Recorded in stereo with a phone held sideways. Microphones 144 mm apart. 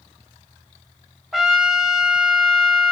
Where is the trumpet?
Centre (ahead or behind), 1.1 m.